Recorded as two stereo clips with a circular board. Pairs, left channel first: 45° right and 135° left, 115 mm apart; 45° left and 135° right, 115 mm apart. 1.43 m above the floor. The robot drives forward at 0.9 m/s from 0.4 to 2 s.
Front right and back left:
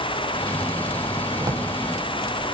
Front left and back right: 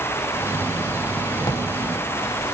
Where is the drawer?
85° left, 1.7 m; by 1.7 s 95° left, 1.7 m.